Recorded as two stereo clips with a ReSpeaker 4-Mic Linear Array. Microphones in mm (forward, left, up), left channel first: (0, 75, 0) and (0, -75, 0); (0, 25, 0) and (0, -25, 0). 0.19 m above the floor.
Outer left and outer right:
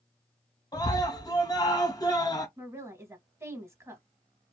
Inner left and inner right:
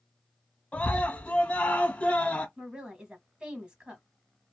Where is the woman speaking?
20° right (ahead or behind), 1.1 m.